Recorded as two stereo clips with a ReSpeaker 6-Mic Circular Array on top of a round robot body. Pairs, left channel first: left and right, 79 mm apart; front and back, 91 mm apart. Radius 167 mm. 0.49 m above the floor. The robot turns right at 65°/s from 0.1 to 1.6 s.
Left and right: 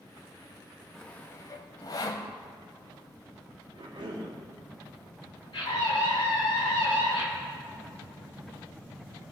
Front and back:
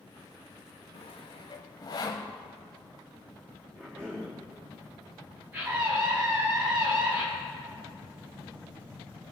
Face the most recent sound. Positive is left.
turn(degrees=115)